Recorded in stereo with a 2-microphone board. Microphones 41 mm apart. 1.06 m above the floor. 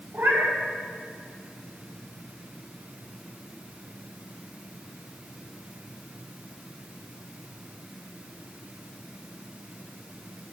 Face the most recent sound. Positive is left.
turn(degrees=-55)  # may be behind; listen again after turning